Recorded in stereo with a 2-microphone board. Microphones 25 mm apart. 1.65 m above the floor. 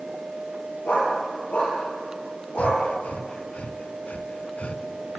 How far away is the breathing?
About 0.8 m.